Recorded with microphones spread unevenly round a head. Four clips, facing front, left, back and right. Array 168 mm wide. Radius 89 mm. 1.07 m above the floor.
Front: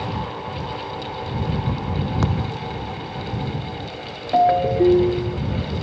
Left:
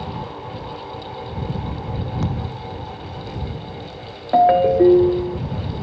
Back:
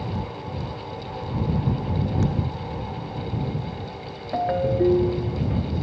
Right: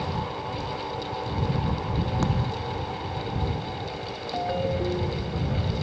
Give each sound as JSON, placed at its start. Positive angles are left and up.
{"t": 2.2, "sound": "a thud", "azimuth_deg": -15}
{"t": 4.3, "sound": "a ringtone", "azimuth_deg": 85}